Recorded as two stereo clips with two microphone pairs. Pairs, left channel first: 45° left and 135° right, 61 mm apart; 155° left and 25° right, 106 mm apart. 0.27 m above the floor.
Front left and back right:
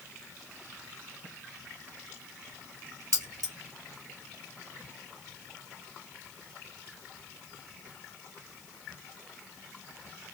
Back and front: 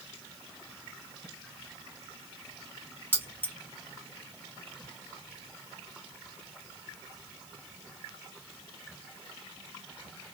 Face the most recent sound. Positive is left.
turn(degrees=-130)